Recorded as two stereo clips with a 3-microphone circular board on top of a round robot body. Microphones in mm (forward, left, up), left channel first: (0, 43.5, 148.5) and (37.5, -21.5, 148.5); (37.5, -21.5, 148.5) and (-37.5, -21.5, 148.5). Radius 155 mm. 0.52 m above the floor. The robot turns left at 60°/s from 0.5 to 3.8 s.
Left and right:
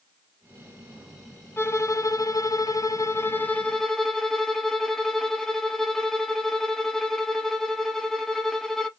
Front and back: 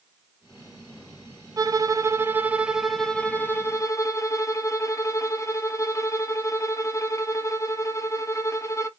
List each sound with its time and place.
1.6 s a violin: 170° left, 0.7 m; by 8.9 s 35° left, 0.7 m